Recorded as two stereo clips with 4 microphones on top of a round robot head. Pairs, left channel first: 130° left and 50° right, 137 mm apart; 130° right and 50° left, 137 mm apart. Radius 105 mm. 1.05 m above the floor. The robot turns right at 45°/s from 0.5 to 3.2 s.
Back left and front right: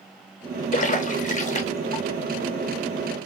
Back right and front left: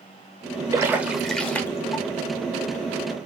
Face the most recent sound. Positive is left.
turn(degrees=-135)